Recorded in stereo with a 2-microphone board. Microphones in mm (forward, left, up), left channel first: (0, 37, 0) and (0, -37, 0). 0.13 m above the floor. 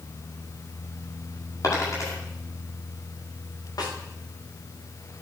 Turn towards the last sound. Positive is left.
turn(degrees=60)  # may be behind; listen again after turning